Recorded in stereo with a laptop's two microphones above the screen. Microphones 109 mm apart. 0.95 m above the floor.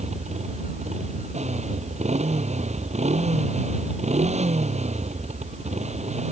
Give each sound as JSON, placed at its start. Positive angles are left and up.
{"t": 0.0, "sound": "a motorcycle", "side_deg": -85}